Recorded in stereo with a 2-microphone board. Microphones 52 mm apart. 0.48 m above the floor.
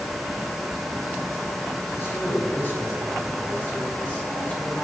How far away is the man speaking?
About 6 m.